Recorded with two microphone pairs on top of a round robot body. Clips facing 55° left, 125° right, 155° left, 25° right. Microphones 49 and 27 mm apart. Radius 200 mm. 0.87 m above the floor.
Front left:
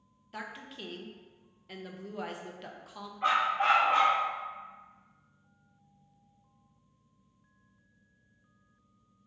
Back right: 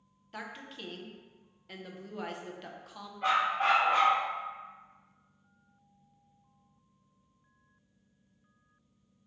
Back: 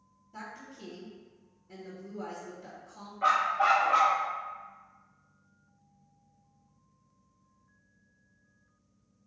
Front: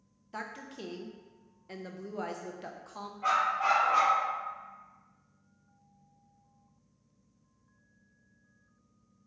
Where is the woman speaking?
30° right, 0.6 m.